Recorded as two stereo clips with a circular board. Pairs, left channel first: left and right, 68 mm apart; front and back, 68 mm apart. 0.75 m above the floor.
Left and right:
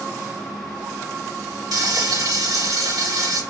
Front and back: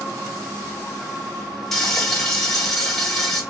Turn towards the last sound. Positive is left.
turn(degrees=-85)